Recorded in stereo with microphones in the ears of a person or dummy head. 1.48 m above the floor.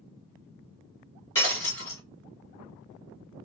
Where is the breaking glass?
15° left (ahead or behind), 3 m.